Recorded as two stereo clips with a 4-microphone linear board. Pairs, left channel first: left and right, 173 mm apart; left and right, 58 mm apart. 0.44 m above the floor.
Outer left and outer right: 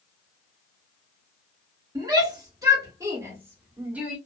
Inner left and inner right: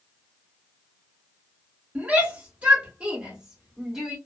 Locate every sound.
1.9 s a shout: 20° right (ahead or behind), 1.4 m; by 4.2 s 5° right (ahead or behind), 1.2 m